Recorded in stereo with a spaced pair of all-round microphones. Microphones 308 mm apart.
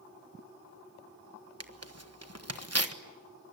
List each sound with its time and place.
1.6 s tearing paper: 50° right (ahead or behind), 1.5 m